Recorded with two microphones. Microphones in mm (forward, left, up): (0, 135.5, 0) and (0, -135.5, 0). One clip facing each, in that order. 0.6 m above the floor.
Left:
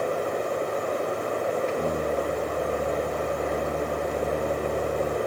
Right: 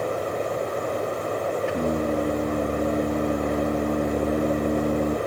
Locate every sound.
1.7 s singing: 80° right, 2.5 m